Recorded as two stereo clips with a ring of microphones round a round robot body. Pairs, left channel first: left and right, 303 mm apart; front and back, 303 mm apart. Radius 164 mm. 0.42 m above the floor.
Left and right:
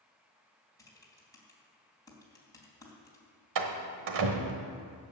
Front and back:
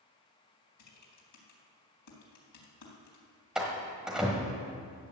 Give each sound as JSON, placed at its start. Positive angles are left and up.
{"t": 0.8, "sound": "typing on a keyboard", "azimuth_deg": 10, "distance_m": 3.5}
{"t": 3.5, "sound": "a door slam", "azimuth_deg": -90, "distance_m": 1.3}